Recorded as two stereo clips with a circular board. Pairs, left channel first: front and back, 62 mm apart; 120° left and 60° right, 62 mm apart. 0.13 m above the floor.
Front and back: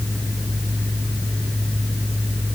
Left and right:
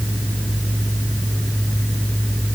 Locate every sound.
Only background noise.